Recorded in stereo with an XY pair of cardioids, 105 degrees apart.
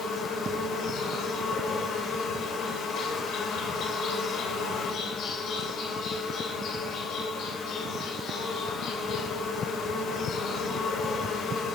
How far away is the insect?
About 5.5 m.